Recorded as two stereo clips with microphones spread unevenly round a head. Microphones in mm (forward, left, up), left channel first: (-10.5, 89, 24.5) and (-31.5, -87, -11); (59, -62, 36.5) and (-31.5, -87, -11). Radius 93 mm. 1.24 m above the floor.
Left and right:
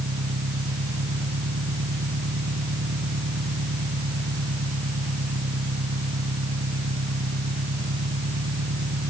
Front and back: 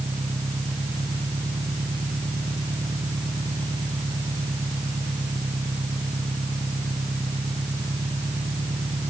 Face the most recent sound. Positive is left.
turn(degrees=-105)